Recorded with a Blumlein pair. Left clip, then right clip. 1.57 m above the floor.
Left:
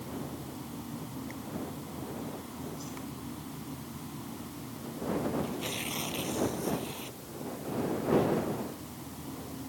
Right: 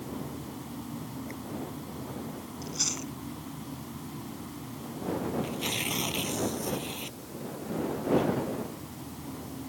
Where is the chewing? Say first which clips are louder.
Right 9 dB; 50° right.